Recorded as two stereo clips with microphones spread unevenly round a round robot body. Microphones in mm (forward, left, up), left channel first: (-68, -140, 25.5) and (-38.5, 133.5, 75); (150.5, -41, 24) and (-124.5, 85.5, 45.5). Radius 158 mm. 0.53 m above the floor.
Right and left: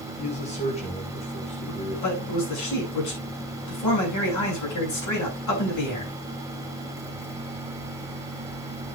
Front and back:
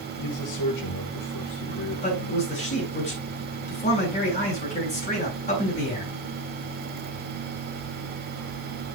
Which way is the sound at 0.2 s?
35° right.